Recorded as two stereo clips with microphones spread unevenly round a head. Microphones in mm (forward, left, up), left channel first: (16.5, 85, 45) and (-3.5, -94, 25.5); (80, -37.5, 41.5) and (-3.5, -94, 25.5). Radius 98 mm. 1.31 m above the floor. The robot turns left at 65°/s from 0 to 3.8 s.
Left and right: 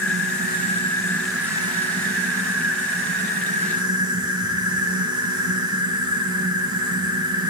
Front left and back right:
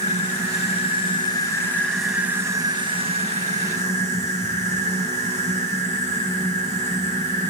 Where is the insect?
80° left, 3 m; by 7.5 s 165° right, 3 m.